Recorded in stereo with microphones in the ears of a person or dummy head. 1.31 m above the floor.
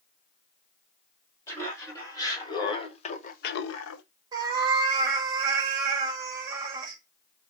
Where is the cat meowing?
20° right (ahead or behind), 1.3 m.